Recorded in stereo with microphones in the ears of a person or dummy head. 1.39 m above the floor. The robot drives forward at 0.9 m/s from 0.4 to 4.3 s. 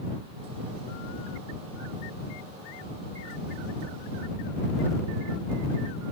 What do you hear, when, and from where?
Only background noise.